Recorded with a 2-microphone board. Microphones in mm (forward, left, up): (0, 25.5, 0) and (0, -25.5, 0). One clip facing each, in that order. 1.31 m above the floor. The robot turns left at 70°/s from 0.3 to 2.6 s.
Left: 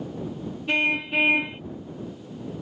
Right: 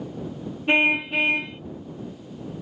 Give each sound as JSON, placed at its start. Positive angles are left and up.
{"t": 0.7, "sound": "a car horn", "azimuth_deg": -145}